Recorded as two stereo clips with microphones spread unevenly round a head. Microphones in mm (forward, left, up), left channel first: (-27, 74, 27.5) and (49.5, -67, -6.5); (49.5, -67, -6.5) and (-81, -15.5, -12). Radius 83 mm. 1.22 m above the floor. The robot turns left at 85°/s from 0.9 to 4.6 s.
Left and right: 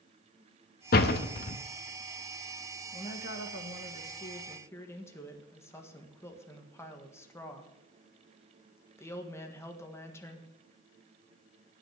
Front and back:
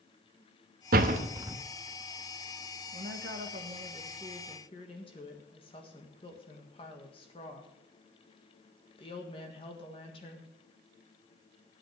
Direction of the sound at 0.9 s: 135° left.